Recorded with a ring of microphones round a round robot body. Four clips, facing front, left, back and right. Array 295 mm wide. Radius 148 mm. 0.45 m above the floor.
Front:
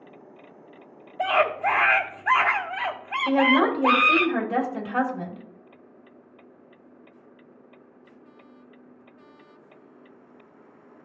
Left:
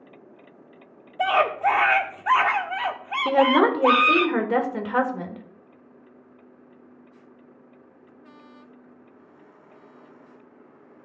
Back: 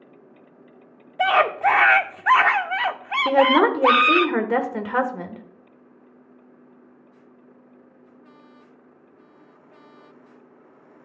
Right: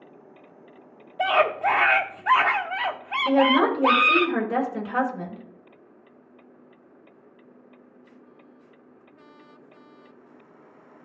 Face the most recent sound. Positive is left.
turn(degrees=155)